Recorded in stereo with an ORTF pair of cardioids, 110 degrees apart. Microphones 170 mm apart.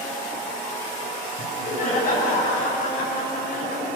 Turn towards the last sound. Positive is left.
turn(degrees=55)